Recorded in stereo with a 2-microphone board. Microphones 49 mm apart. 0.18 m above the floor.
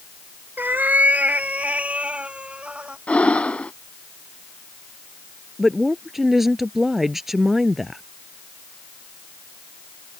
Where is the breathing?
25° left (ahead or behind).